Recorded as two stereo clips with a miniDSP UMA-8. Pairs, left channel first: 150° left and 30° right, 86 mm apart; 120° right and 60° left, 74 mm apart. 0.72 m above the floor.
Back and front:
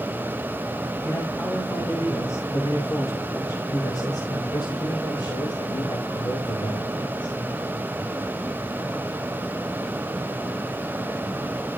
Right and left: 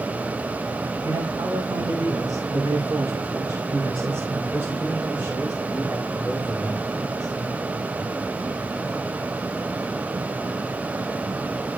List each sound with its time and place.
1.0 s a man speaking: 95° left, 4 m; by 7.3 s 150° left, 4 m